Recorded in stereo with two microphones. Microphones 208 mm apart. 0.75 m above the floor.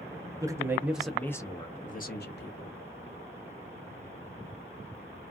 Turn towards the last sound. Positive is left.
turn(degrees=60)  # may be behind; listen again after turning